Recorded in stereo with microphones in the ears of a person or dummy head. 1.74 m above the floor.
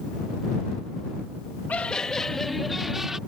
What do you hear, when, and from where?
1.7 s laughter: 5° left (ahead or behind); by 3.2 s 5° right (ahead or behind)